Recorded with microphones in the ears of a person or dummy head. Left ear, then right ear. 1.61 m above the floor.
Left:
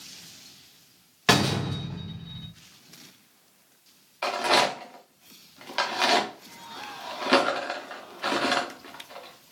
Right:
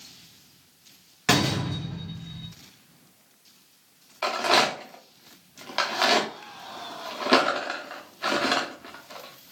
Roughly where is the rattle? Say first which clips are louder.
Right 1 dB; centre.